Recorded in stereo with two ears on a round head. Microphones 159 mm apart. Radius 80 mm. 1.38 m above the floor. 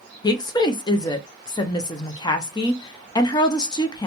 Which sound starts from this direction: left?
A woman speaking, at 0.2 s.